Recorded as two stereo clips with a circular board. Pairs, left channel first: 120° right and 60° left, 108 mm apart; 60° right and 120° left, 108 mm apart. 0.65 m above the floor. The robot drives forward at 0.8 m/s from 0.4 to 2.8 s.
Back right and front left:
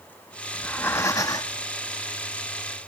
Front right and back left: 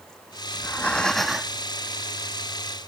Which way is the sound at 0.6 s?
60° right.